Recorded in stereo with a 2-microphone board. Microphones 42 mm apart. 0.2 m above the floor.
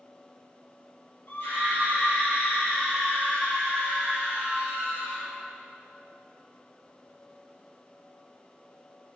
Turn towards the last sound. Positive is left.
turn(degrees=35)  # may be behind; listen again after turning